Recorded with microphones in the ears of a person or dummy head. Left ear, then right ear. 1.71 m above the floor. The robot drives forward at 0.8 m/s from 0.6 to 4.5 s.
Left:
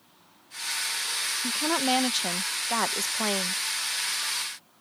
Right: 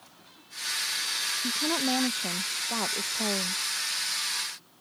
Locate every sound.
1.4 s a woman speaking: 55° left (ahead or behind); by 3.6 s 60° left (ahead or behind)